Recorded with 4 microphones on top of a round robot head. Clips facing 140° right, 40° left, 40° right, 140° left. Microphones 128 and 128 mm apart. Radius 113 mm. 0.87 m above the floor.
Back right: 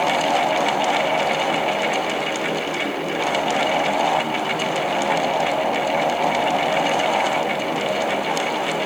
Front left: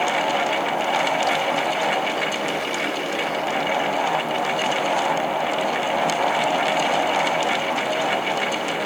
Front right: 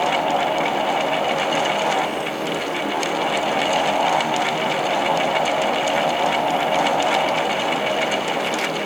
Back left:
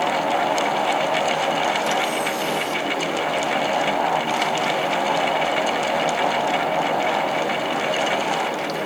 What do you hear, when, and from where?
Only background noise.